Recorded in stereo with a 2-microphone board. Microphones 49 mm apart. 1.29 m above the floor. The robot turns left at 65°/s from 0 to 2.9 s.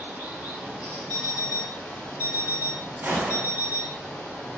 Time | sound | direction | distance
0.0 | running water | 115° right | 1.7 m
1.1 | an alarm clock | 145° left | 1.8 m
3.0 | a gunshot | 50° right (ahead or behind) | 0.8 m